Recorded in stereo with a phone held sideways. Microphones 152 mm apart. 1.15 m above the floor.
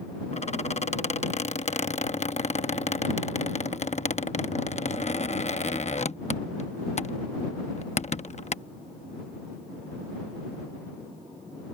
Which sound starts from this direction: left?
A squeak, at 0.3 s.